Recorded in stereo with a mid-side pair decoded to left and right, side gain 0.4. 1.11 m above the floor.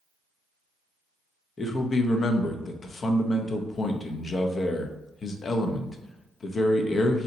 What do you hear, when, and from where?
1.6 s a man speaking: 50° left, 0.6 m